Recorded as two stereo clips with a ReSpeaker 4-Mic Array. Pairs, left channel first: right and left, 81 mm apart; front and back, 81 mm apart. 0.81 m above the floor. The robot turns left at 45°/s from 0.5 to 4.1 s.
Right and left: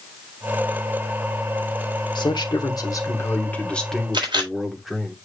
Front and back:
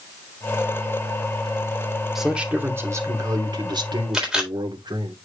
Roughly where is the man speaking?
Right.